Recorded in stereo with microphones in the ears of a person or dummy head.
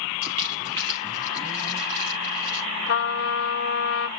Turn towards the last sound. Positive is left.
turn(degrees=65)  # may be behind; listen again after turning